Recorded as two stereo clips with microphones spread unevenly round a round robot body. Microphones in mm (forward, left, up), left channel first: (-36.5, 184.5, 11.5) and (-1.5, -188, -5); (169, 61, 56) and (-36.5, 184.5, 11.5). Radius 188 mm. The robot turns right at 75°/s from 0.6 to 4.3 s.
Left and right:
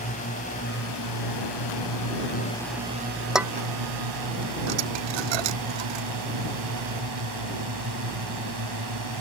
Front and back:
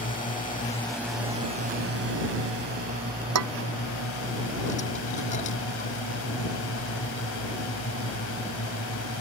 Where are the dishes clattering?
175° right; by 6.1 s 105° right.